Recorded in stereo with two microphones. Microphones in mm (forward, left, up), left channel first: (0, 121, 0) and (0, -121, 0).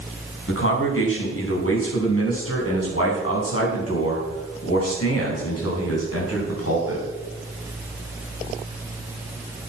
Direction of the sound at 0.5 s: 55° left (ahead or behind).